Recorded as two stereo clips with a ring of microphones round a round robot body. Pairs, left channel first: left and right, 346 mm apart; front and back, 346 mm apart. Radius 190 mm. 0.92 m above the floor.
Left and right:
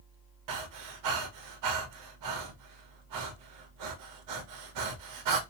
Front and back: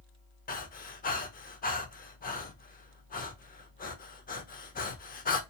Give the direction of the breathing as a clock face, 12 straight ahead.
2 o'clock.